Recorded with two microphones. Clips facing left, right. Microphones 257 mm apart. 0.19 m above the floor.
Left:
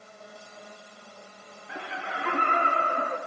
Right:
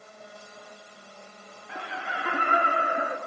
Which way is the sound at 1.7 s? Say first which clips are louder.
Even; 5° left (ahead or behind).